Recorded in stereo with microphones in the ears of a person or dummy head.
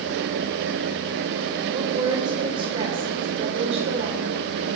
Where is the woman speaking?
25° right (ahead or behind), 5.5 m; by 4.2 s 40° right (ahead or behind), 5 m.